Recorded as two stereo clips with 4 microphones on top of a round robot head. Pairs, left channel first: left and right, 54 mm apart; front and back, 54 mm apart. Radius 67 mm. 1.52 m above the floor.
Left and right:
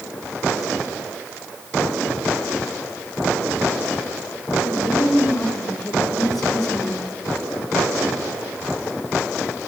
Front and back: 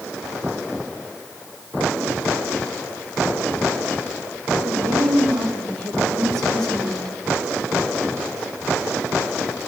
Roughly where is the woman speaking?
Behind.